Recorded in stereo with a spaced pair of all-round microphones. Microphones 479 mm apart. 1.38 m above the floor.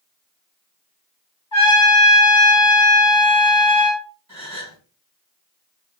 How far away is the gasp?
About 1.9 m.